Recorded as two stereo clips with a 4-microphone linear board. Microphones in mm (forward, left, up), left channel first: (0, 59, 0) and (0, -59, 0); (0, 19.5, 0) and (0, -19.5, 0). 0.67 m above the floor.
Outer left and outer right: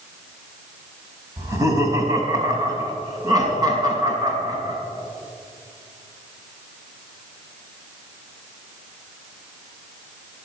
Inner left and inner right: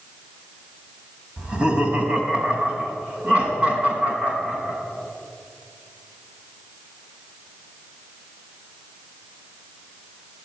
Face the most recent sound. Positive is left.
turn(degrees=-35)  # may be behind; listen again after turning